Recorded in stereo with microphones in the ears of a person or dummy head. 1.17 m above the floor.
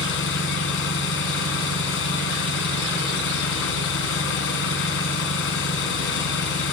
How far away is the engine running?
About 3.5 m.